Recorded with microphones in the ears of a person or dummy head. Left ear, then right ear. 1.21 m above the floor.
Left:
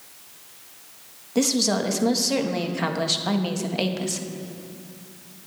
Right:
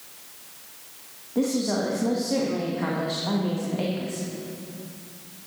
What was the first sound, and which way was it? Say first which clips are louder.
A woman speaking: left 3 dB; 70° left (ahead or behind).